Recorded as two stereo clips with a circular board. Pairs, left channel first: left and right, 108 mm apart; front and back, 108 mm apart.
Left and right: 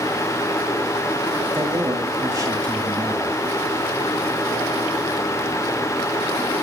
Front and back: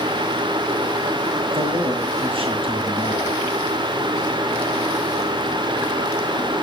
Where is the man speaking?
145° right, 5.5 m.